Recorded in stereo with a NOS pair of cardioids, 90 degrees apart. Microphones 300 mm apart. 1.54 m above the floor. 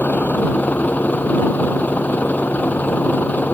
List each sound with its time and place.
0.0 s a vehicle: 5° left